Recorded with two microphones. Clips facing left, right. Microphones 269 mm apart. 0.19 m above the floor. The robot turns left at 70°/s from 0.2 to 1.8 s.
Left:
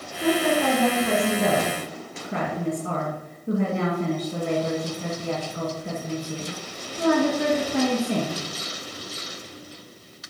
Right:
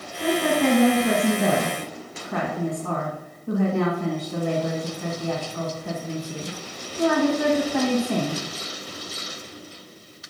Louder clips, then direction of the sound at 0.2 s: Even; 95° right.